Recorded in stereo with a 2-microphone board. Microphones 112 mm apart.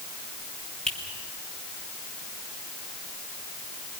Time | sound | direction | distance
0.9 | a finger snap | 5° left (ahead or behind) | 6.5 m